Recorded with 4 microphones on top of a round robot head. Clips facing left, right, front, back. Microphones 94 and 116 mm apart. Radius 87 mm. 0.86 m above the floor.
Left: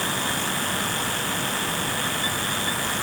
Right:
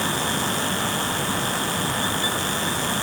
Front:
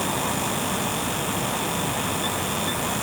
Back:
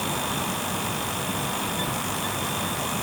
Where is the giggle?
No giggle in this recording.